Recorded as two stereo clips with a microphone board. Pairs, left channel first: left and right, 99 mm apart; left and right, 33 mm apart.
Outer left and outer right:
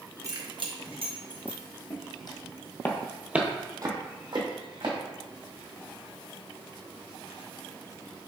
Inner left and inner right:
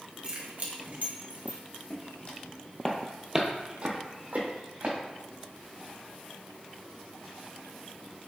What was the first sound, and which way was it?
Keys jangling, 35° right (ahead or behind).